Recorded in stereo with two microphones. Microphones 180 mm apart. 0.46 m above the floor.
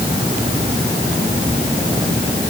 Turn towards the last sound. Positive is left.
No sound to turn to.